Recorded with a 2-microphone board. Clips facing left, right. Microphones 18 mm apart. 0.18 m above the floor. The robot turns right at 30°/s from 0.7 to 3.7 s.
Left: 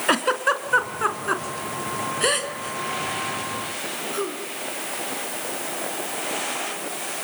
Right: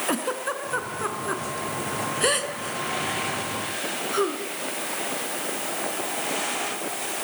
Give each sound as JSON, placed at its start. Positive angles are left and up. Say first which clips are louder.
{"t": 0.1, "sound": "a giggle", "louder": "left 10 dB", "side_deg": 40, "distance_m": 2.0}